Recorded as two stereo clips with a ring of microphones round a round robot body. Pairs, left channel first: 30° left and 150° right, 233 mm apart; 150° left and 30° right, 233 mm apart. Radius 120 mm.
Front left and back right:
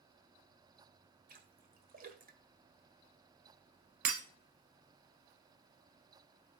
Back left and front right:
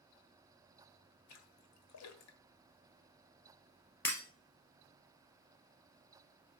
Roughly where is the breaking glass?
Behind right.